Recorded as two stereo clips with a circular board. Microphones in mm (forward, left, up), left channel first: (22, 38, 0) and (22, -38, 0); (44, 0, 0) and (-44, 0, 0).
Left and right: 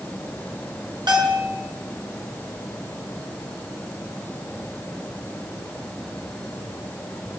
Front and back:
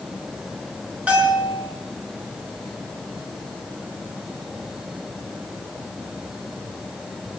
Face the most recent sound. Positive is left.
turn(degrees=-105)